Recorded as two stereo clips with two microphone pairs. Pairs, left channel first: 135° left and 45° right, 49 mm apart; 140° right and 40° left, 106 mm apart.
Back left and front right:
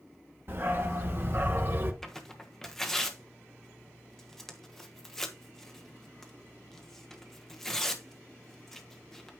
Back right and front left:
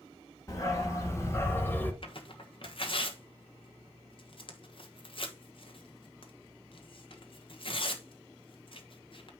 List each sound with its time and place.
0.5 s a dog barking: 85° right, 1.9 m; by 1.9 s 70° right, 1.0 m
2.0 s tearing paper: 140° right, 1.1 m